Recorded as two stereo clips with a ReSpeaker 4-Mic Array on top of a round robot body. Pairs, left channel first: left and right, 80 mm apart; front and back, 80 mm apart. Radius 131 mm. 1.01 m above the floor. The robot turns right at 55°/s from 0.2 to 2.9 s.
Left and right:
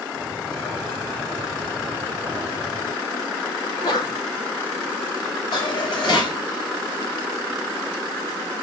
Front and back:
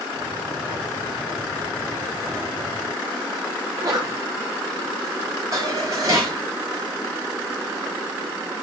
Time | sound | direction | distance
3.6 | a sneeze | 130° left | 4.5 m
5.5 | dishes clattering | 125° left | 4 m